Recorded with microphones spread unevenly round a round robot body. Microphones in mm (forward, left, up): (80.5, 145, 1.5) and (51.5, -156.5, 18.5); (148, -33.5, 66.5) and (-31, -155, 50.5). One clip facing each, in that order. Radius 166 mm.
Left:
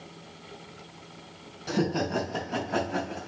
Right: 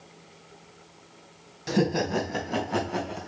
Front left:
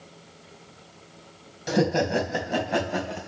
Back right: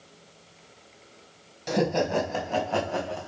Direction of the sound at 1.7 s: 50° right.